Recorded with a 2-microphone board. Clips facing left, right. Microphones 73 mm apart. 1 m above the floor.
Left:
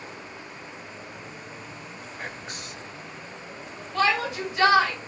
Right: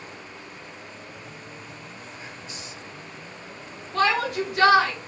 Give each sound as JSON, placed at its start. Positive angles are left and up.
{"t": 2.2, "sound": "whispering", "side_deg": 55, "distance_m": 0.6}
{"t": 3.9, "sound": "a shout", "side_deg": -55, "distance_m": 4.5}